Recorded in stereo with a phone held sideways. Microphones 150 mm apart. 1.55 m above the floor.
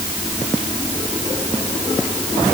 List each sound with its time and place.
Only background noise.